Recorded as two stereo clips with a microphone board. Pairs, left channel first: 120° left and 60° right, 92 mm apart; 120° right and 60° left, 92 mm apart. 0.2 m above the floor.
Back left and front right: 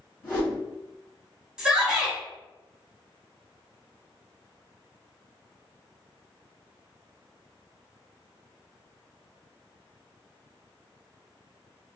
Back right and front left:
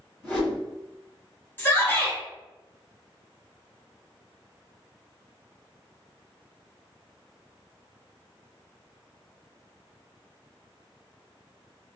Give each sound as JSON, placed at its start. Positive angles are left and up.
{"t": 0.2, "sound": "a whoosh", "azimuth_deg": 180, "distance_m": 1.8}
{"t": 1.6, "sound": "a shout", "azimuth_deg": -130, "distance_m": 1.0}